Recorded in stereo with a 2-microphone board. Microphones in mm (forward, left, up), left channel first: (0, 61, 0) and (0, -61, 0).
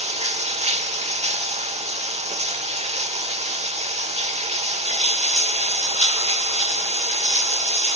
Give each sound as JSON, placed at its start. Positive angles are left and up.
{"t": 0.0, "sound": "running water", "side_deg": -60, "distance_m": 1.1}